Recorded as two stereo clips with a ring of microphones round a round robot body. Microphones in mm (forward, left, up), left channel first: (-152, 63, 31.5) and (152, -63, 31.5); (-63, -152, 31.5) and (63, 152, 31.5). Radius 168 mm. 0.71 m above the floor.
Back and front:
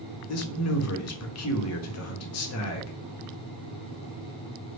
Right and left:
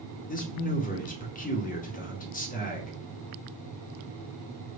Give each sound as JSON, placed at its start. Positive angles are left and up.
{"t": 0.3, "sound": "a man speaking", "azimuth_deg": -175, "distance_m": 0.8}